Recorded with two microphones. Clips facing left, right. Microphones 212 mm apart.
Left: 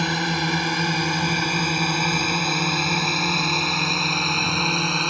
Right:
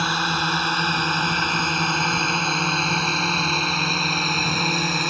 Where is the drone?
15° left (ahead or behind); by 5.1 s 5° right (ahead or behind).